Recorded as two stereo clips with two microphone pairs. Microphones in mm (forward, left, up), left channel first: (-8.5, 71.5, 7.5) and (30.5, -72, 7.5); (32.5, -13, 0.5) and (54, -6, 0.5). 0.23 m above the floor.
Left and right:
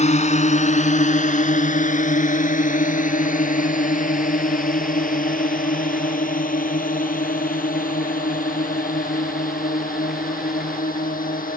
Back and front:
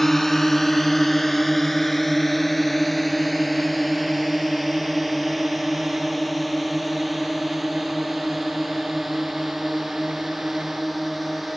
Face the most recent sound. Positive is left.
turn(degrees=100)